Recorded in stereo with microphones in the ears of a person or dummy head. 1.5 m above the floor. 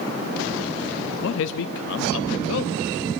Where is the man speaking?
65° left (ahead or behind), 0.6 m.